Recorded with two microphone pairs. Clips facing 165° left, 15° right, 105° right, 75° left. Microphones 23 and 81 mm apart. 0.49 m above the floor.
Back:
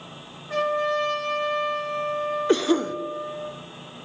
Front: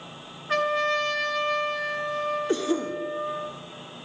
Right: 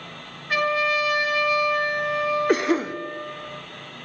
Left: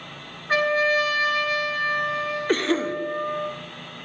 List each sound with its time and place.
0.5 s a trumpet: 20° left, 3 m
2.5 s a cough: 175° right, 0.9 m